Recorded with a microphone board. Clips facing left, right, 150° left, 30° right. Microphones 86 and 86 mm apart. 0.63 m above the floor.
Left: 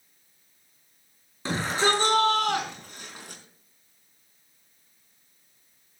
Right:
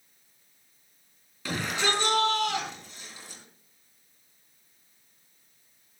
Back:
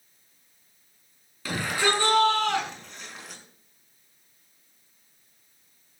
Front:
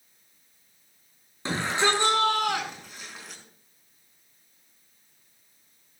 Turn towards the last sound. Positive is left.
turn(degrees=65)